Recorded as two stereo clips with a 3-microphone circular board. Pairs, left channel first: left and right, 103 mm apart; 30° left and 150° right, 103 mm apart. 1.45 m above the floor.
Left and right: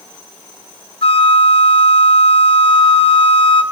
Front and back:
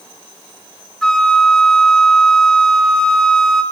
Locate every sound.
1.0 s a flute: 115° left, 1.4 m